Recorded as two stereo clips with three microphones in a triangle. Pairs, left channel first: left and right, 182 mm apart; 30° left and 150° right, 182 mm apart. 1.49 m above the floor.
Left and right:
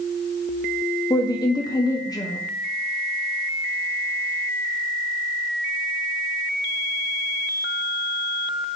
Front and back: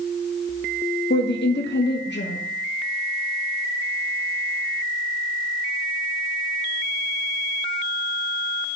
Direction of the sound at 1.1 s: 20° left.